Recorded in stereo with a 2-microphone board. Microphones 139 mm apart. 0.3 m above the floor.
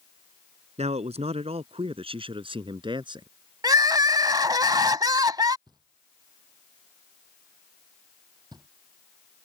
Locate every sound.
0.8 s a man speaking: 50° right (ahead or behind); by 3.3 s 35° right (ahead or behind)
3.6 s crying: 30° right (ahead or behind)
5.7 s knocking: 30° right (ahead or behind)